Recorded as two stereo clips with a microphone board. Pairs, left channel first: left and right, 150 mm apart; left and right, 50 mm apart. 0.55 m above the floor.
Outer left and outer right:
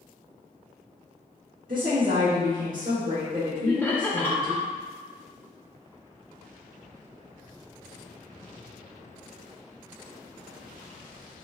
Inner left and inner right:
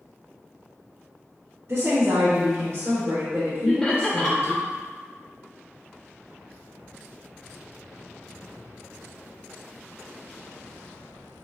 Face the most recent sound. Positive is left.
turn(degrees=15)  # may be behind; listen again after turning